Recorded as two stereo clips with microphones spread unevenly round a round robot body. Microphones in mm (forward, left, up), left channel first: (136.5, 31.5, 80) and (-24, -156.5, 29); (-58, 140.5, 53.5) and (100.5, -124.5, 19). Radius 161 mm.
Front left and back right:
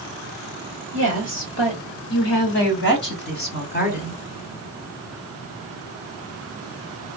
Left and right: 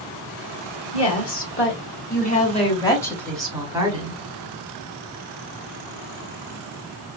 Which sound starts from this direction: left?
A woman speaking, at 0.9 s.